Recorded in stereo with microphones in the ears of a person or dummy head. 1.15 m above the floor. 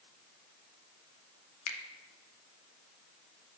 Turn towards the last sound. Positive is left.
turn(degrees=85)